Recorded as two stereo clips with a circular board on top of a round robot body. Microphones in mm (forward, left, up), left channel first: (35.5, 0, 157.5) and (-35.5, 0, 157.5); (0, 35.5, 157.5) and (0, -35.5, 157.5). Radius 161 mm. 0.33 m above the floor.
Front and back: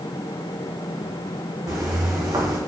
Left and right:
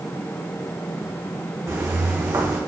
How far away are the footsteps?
About 1.5 m.